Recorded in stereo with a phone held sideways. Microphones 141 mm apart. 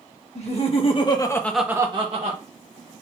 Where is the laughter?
50° left (ahead or behind), 1.5 m; by 2.4 s 50° right (ahead or behind), 1.0 m.